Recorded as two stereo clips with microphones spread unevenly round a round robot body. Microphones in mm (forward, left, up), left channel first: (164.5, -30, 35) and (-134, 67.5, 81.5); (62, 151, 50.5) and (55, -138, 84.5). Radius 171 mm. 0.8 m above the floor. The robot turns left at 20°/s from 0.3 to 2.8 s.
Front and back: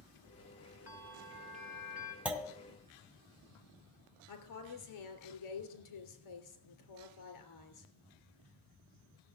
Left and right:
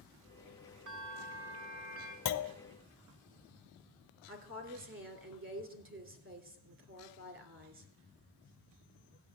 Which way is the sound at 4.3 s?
40° right.